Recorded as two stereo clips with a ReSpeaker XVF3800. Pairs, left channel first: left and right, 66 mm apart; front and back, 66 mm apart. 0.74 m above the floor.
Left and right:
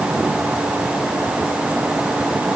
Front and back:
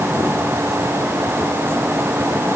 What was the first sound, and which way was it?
Only background noise.